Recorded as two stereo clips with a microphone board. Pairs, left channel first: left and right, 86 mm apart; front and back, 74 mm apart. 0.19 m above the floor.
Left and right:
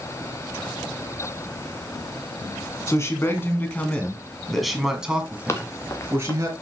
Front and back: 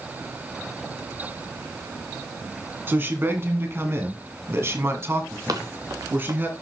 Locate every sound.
2.9 s a man speaking: 130° left, 2.5 m; by 6.5 s 130° right, 2.5 m
5.5 s running footsteps: 145° left, 1.7 m